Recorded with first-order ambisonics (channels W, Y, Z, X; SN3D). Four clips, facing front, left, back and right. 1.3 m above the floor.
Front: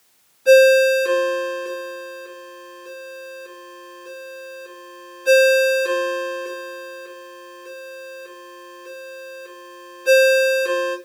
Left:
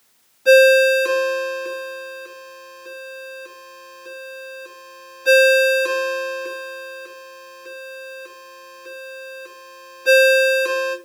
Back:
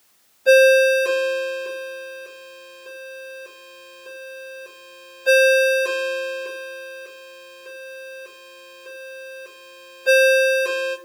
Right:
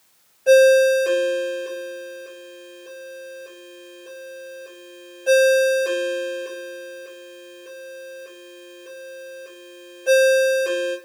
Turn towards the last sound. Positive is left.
turn(degrees=90)